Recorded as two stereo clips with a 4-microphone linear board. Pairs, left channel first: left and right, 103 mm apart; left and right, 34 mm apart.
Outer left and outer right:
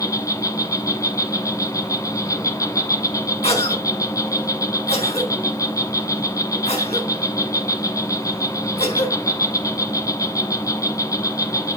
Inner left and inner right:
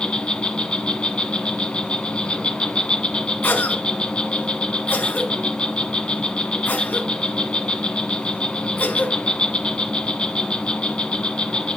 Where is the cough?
75° left (ahead or behind), 5.5 m.